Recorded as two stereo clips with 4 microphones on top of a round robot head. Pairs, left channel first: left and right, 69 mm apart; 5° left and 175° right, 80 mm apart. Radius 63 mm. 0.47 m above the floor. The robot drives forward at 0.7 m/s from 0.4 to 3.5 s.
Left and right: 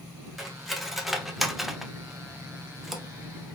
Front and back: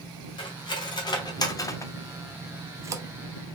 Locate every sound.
0.4 s cutlery clinking: straight ahead, 1.5 m; by 3.0 s 175° right, 0.7 m